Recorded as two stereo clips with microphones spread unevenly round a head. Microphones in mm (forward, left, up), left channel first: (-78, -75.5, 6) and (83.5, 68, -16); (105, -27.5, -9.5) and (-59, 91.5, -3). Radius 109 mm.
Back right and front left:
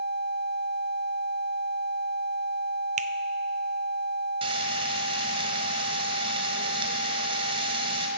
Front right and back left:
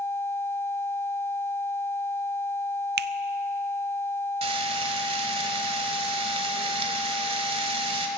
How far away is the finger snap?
About 0.5 m.